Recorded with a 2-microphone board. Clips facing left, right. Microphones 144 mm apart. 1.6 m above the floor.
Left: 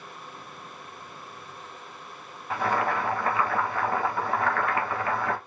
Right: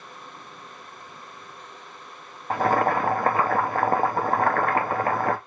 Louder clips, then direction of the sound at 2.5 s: Right 5 dB; 50° right (ahead or behind).